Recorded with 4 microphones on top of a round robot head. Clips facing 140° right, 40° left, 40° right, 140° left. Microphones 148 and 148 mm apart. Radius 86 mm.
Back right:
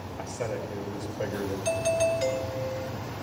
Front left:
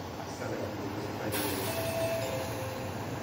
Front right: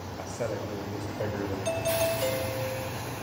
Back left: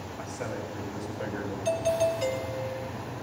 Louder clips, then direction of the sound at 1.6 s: Back right 12 dB, back left 3 dB; 130° right.